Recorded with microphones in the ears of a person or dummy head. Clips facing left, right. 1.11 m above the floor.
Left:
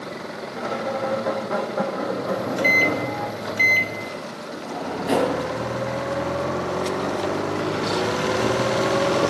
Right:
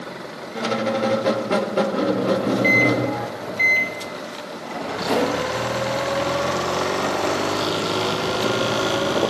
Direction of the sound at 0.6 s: 50° right (ahead or behind).